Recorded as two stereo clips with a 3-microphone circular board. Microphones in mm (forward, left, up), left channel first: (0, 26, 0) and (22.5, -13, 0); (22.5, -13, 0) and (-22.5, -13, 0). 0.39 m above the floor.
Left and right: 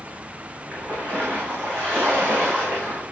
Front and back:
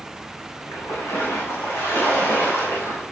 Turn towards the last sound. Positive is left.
turn(degrees=-5)